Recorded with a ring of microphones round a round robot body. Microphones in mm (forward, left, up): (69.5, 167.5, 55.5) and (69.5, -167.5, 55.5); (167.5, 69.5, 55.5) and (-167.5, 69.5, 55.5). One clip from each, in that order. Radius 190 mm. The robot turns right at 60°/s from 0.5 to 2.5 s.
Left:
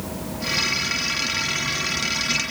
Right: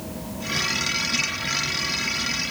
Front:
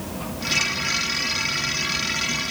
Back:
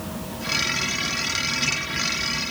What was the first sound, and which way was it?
Only background noise.